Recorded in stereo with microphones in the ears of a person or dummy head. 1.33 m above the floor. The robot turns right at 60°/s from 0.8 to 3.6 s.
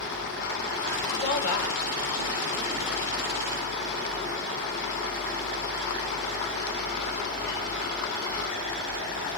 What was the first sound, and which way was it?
A woman speaking, 50° left.